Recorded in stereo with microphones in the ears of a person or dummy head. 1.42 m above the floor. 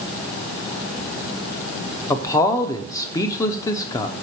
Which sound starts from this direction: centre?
A man speaking, at 2.1 s.